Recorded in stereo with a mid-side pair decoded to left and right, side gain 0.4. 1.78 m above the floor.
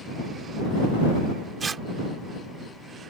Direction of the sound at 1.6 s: 40° right.